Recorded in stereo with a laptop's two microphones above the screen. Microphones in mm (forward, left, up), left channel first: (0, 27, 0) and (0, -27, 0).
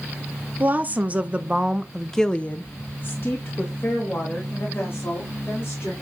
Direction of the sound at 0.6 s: 30° right (ahead or behind).